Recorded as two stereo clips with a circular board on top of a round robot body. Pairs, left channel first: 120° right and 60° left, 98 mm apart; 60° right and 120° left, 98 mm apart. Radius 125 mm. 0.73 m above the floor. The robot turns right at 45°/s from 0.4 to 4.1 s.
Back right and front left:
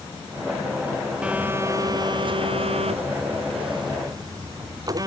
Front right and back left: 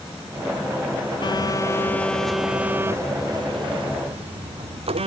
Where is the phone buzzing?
20° right; by 5.1 s 110° left.